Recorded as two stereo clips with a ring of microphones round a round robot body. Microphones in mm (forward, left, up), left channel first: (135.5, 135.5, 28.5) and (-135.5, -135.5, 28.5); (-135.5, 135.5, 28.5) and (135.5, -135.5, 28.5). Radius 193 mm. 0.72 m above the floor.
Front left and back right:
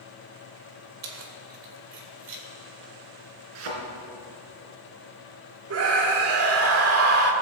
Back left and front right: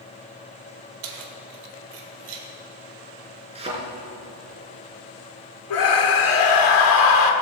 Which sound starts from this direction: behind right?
A thud, at 3.5 s.